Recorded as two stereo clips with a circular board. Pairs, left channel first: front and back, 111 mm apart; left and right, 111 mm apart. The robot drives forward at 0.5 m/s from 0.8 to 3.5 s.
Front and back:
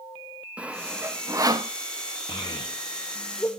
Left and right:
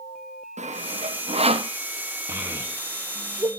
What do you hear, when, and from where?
0.6 s sawing: 100° right, 0.8 m; by 1.7 s 130° right, 1.0 m
2.3 s a child speaking: 30° right, 1.3 m; by 3.5 s 60° right, 1.0 m